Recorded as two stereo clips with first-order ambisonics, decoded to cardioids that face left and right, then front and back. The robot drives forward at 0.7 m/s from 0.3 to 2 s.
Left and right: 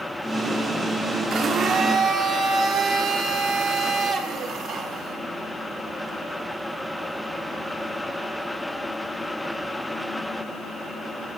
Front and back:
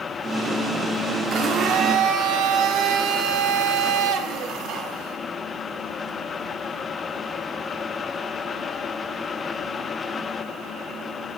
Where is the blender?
150° right, 1.4 m; by 5.2 s 160° right, 1.7 m.